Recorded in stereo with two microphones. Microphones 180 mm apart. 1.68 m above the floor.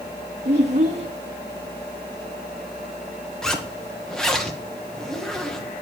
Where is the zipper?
5° left (ahead or behind), 1.6 m.